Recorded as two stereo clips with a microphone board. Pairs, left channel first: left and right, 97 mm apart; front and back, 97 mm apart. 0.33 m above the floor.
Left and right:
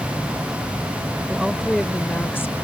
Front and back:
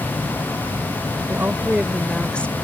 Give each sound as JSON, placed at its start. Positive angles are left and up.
{"t": 1.3, "sound": "a woman speaking", "azimuth_deg": -160}